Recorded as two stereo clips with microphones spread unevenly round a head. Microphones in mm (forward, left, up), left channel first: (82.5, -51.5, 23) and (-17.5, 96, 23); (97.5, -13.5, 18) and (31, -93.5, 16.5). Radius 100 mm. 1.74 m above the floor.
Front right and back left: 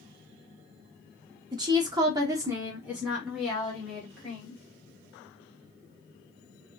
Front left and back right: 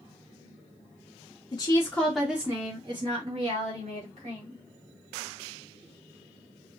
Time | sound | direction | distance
1.5 | a woman speaking | 70° left | 0.7 m